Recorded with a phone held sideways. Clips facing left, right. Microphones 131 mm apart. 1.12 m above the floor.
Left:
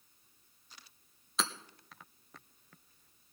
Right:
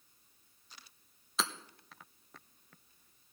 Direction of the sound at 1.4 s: Centre (ahead or behind).